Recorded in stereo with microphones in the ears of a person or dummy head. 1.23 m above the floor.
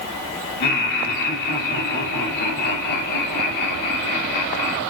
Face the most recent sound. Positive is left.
turn(degrees=55)  # may be behind; listen again after turning